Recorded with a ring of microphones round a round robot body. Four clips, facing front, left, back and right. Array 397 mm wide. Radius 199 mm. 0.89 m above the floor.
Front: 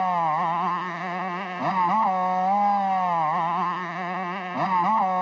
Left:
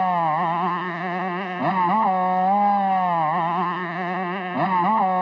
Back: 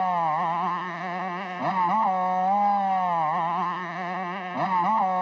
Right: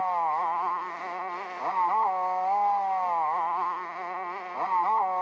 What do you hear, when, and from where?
0.0 s a motorcycle: 85° left